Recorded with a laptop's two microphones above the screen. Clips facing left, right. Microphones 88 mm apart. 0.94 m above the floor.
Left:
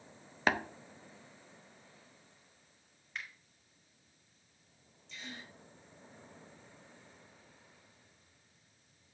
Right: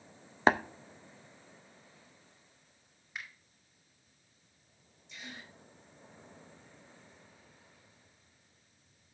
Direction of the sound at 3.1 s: 10° right (ahead or behind).